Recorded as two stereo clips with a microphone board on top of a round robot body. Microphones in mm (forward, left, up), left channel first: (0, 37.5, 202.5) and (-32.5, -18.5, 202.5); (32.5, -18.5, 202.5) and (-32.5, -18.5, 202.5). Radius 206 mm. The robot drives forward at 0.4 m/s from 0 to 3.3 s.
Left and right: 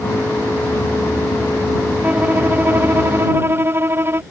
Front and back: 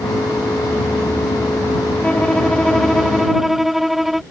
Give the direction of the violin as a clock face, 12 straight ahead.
2 o'clock.